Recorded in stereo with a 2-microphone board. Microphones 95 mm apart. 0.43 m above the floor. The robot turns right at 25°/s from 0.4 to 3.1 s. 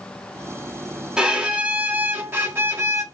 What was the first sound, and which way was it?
A violin, 10° right (ahead or behind).